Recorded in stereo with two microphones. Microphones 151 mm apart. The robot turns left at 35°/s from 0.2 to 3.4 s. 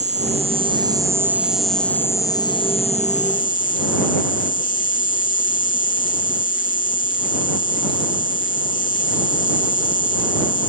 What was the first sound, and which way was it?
An insect, 130° right.